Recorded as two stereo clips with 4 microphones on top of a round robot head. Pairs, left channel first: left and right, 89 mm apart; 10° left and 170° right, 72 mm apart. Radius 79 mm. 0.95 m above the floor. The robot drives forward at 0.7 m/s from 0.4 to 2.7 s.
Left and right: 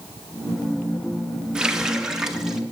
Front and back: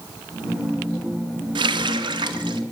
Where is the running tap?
175° right, 0.8 m.